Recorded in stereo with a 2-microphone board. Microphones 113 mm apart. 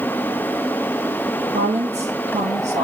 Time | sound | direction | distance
1.5 | a woman speaking | 75° right (ahead or behind) | 5.5 m